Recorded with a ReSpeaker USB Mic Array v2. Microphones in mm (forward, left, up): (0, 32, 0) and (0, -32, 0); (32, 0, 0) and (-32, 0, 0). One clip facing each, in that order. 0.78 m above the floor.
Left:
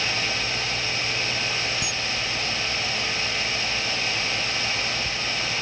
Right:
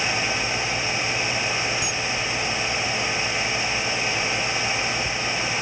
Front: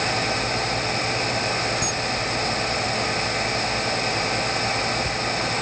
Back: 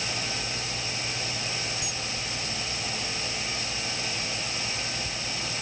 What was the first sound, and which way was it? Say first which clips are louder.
A camera shutter: right 2 dB, front 10 dB; 25° left.